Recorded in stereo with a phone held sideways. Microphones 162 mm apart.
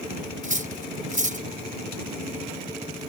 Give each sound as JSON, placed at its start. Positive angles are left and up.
{"t": 0.4, "sound": "cutlery clinking", "side_deg": -50}